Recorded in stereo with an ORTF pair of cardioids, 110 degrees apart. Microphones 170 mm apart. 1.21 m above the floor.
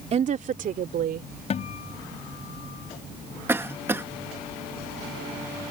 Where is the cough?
15° right.